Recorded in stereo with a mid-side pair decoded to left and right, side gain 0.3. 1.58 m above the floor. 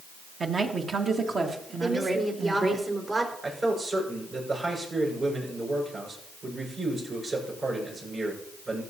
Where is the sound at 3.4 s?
60° right, 6 m.